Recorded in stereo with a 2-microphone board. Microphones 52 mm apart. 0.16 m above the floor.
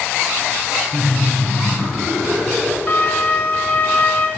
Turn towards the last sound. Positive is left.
turn(degrees=35)  # may be behind; listen again after turning